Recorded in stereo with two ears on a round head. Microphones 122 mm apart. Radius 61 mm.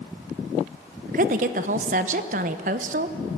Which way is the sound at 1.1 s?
55° right (ahead or behind).